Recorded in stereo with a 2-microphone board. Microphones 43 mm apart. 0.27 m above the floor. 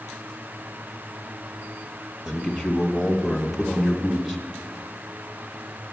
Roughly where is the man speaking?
Centre.